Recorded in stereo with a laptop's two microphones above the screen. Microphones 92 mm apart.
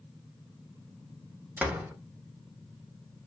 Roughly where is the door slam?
Centre.